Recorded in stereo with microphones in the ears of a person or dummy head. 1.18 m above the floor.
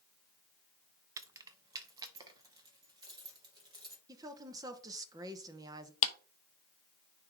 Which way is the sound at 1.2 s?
20° right (ahead or behind).